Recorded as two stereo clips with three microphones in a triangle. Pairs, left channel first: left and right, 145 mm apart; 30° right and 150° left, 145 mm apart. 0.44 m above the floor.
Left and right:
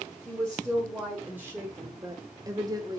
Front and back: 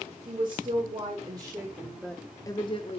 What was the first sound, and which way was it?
A woman speaking, 175° right.